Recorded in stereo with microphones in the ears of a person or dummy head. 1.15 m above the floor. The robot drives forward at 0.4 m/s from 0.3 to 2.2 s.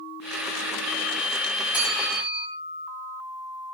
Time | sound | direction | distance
1.7 | a bell | 20° left (ahead or behind) | 7.5 m